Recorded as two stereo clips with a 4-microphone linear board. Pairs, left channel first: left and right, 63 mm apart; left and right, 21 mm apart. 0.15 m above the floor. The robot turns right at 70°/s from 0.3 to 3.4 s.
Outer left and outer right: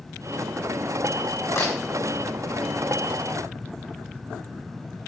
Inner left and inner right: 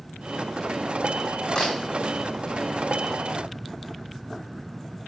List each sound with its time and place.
1.6 s a camera shutter: 45° left (ahead or behind), 3 m; by 1.7 s 60° left (ahead or behind), 3 m